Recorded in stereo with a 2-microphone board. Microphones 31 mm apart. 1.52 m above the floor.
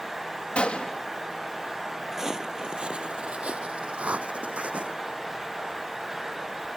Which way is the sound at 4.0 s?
60° right (ahead or behind).